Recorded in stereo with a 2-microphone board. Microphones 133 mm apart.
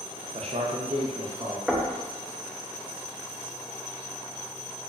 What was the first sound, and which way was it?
A man speaking, 55° right (ahead or behind).